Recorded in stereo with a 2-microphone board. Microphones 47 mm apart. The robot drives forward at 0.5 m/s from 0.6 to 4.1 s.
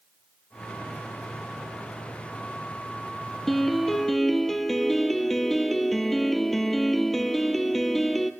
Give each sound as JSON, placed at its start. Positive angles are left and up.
{"t": 3.5, "sound": "a piano", "side_deg": 0, "distance_m": 2.0}